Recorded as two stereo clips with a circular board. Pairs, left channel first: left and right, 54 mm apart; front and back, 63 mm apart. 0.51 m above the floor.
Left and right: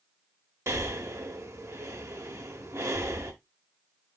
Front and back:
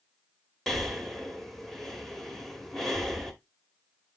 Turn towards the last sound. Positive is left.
turn(degrees=-85)